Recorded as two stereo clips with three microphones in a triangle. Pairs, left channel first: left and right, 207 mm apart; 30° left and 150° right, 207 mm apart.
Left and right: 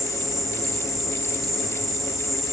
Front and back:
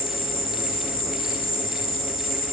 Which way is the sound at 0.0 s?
Straight ahead.